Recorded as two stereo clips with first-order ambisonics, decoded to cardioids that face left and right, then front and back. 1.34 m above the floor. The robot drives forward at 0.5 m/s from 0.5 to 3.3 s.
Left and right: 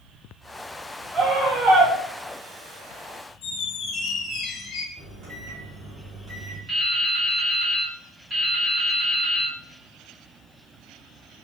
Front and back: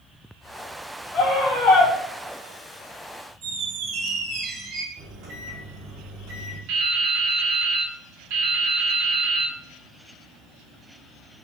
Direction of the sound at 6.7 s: 165° right.